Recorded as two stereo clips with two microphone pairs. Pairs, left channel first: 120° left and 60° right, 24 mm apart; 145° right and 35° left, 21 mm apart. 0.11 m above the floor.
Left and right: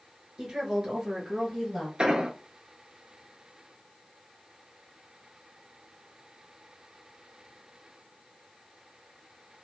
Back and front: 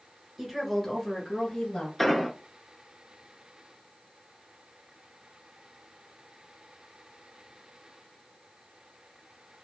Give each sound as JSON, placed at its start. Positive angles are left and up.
{"t": 0.4, "sound": "a woman speaking", "azimuth_deg": -15, "distance_m": 1.4}
{"t": 2.0, "sound": "an explosion", "azimuth_deg": -50, "distance_m": 0.7}